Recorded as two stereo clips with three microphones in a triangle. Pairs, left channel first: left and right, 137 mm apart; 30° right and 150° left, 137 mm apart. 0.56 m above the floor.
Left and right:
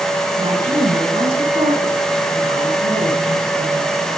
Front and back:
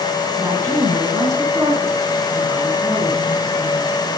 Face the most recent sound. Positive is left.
turn(degrees=-140)